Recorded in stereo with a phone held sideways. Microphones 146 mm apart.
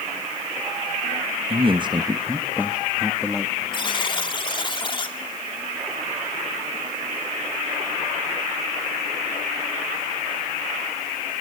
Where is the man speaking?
40° right (ahead or behind), 1.2 m; by 3.6 s 10° left (ahead or behind), 1.9 m.